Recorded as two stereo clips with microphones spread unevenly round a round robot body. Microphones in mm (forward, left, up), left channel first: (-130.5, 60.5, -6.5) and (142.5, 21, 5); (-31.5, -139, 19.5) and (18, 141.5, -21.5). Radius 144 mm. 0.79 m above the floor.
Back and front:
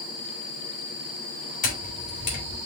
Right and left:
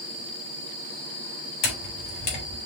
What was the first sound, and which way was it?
A camera shutter, 125° right.